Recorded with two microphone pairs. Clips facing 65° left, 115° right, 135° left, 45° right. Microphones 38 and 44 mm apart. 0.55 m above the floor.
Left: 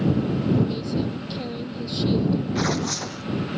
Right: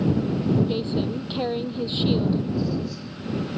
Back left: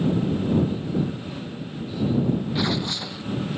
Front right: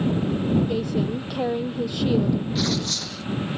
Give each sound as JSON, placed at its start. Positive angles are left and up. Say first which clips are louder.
{"t": 0.7, "sound": "a woman speaking", "louder": "right 1 dB, front right 2 dB", "azimuth_deg": -60}
{"t": 2.5, "sound": "tearing paper", "louder": "left 2 dB, even", "azimuth_deg": 60}